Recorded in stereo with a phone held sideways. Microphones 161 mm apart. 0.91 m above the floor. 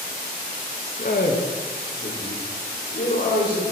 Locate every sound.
1.0 s a man speaking: 55° left (ahead or behind), 0.6 m; by 3.7 s 65° left (ahead or behind), 2.5 m